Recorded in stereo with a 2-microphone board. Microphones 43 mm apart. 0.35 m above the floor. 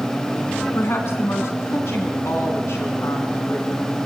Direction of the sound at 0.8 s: 70° left (ahead or behind).